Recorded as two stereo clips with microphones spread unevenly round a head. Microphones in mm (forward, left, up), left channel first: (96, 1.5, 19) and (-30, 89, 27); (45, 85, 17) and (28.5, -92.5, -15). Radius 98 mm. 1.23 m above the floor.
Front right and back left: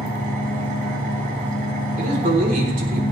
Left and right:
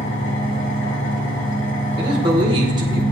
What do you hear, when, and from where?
0.0 s an engine running: 110° left, 7.5 m
2.0 s a man speaking: 165° right, 3.5 m